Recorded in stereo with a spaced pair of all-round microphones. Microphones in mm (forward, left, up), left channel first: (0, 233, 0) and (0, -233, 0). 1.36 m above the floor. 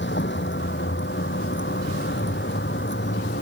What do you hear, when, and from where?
0.0 s a vehicle: 25° left (ahead or behind)